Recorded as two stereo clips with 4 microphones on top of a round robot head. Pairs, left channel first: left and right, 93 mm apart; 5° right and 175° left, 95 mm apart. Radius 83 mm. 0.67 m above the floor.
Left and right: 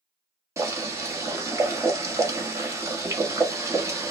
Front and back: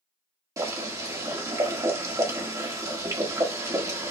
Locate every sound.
0.6 s boiling: 140° right, 1.4 m